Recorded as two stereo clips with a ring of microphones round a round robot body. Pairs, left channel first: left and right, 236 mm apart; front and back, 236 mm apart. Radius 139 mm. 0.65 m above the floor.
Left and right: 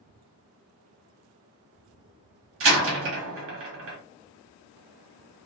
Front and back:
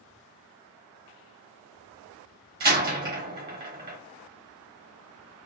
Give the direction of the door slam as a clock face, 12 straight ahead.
4 o'clock.